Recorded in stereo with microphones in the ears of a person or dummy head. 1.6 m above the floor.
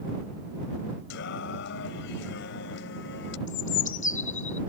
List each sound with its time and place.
1.1 s singing: 75° left (ahead or behind)
3.5 s a bird: 45° left (ahead or behind)